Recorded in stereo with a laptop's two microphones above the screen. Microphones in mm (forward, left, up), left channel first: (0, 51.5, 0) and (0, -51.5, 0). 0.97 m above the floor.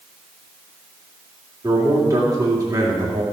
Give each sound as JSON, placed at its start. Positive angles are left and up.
{"t": 1.6, "sound": "a man speaking", "side_deg": -35, "distance_m": 2.5}